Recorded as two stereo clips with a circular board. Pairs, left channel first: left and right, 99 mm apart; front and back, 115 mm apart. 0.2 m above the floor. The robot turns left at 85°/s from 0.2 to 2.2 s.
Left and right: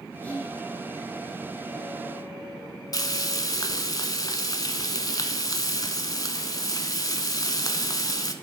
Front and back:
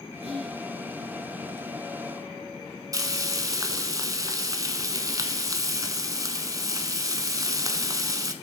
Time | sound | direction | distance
0.2 | whispering | 170° left | 2.5 m
2.9 | frying | 130° left | 0.5 m